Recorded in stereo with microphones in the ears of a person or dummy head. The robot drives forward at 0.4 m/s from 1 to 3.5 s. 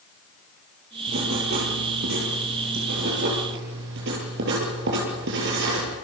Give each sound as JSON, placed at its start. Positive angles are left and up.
{"t": 1.1, "sound": "writing", "side_deg": -60, "distance_m": 7.5}